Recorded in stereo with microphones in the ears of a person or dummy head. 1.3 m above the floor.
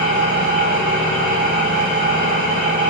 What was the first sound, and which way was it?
An engine running, 10° right (ahead or behind).